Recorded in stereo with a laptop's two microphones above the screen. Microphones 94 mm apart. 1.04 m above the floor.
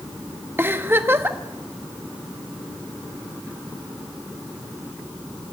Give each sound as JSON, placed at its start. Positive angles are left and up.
{"t": 0.6, "sound": "a giggle", "side_deg": -25, "distance_m": 1.0}